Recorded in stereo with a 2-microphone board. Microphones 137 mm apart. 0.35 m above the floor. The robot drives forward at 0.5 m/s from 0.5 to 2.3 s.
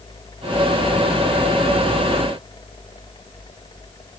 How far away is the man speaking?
I don't hear a man speaking.